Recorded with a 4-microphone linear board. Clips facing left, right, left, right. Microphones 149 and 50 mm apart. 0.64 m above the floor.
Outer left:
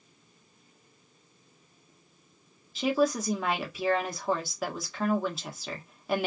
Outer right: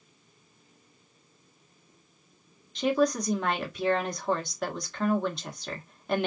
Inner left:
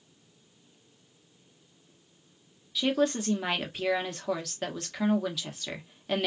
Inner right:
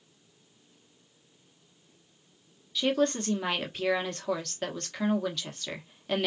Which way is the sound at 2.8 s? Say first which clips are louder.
Outer right 1 dB, even; 5° left (ahead or behind).